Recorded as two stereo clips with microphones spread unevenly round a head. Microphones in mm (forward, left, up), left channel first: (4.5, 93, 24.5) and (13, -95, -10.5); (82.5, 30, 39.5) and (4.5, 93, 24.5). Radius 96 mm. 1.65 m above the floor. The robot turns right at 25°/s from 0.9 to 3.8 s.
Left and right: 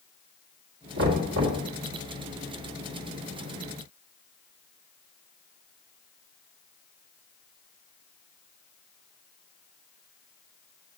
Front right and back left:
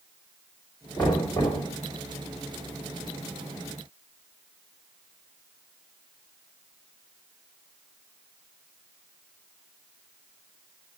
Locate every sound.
1.0 s knocking: 115° right, 2.5 m; by 1.6 s 100° right, 2.5 m